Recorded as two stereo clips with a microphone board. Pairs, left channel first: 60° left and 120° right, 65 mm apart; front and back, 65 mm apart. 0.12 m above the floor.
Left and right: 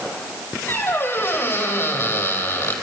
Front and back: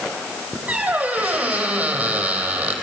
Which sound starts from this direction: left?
A squeak, at 0.7 s.